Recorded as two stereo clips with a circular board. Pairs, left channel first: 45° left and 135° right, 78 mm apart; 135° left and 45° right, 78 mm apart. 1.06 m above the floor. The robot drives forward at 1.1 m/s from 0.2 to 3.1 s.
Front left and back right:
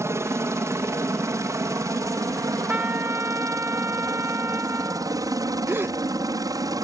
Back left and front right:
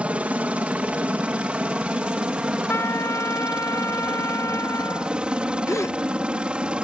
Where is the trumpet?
170° left; by 5.2 s 175° left.